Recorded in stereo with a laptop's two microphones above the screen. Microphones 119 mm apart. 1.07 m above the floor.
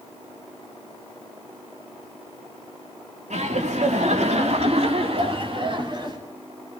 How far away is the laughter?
About 2.5 m.